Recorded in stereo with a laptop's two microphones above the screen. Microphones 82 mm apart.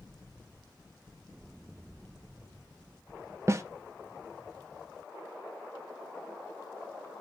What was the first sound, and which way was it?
A snare drum, 35° right (ahead or behind).